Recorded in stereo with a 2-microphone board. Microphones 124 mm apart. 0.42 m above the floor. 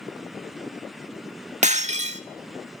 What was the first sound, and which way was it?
Breaking glass, 80° right.